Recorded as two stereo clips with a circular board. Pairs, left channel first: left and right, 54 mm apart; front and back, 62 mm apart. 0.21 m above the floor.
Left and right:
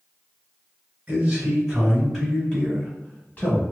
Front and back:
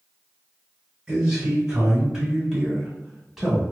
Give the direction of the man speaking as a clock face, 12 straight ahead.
4 o'clock.